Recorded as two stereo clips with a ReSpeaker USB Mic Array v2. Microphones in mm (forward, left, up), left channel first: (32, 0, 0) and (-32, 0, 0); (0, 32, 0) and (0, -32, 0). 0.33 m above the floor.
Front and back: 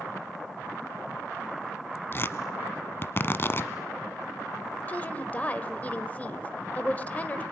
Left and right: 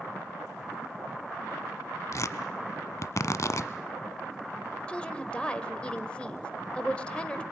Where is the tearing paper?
50° left, 0.9 m.